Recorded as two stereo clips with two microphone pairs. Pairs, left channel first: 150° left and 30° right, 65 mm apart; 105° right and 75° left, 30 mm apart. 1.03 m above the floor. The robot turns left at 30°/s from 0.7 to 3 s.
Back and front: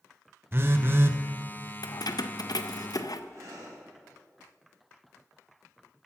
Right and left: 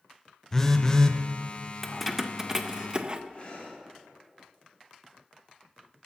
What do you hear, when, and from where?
0.5 s a phone buzzing: 35° right, 0.6 m; by 1.2 s 50° right, 0.6 m
1.8 s keys jangling: 160° left, 0.5 m; by 3.2 s 125° left, 0.5 m
3.3 s breathing: 65° right, 4.5 m